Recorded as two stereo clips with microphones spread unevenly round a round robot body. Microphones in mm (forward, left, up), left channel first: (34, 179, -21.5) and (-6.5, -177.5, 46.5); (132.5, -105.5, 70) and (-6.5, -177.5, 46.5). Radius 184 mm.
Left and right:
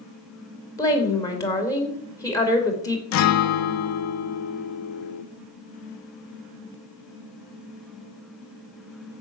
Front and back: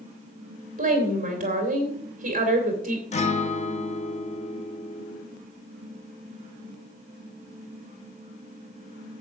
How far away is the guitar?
About 0.6 m.